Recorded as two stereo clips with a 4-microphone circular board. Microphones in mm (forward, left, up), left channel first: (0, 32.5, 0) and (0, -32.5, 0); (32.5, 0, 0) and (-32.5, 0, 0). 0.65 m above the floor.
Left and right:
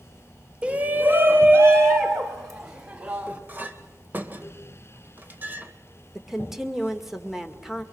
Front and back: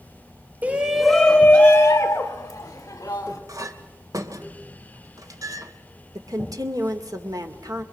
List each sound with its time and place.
0.6 s a shout: 150° right, 0.9 m; by 3.4 s 35° right, 2.5 m
3.5 s a clink: 155° right, 1.8 m
6.2 s a woman speaking: 175° right, 2 m